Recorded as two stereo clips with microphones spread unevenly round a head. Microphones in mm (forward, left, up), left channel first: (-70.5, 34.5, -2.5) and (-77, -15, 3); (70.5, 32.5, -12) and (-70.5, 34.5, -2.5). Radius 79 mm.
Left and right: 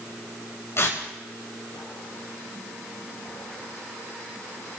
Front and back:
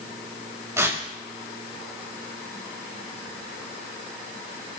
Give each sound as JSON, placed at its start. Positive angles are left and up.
{"t": 0.8, "sound": "tearing paper", "azimuth_deg": 110, "distance_m": 4.5}